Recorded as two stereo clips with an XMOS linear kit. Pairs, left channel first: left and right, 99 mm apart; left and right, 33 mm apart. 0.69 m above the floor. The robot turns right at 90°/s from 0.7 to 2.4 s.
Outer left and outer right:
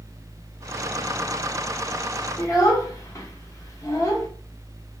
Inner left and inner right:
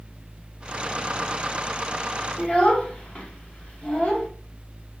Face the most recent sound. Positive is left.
turn(degrees=30)  # may be behind; listen again after turning